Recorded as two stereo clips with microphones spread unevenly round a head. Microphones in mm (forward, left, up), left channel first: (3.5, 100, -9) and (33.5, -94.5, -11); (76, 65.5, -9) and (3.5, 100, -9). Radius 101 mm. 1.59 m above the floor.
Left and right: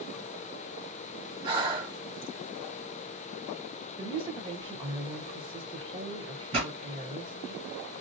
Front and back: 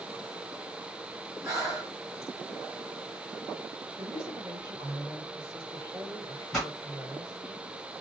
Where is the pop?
105° right, 1.6 m.